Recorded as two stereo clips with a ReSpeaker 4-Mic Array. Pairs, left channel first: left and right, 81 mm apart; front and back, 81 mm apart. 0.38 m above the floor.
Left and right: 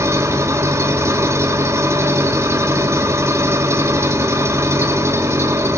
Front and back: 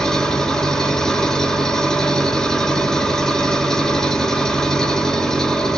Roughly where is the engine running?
Right.